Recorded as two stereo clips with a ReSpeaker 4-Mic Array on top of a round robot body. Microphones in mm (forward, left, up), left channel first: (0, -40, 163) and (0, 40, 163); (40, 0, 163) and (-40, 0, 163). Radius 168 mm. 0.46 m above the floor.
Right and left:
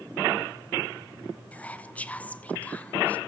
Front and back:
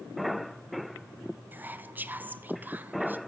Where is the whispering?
140° right, 0.8 m.